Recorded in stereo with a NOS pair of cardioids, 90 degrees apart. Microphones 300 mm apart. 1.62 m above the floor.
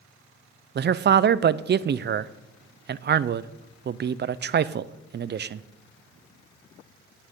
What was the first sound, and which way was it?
A man speaking, 35° right.